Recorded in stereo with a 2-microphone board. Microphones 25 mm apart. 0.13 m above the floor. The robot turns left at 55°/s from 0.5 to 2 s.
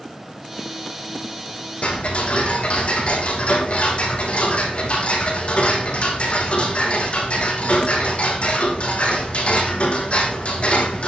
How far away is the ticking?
About 3 m.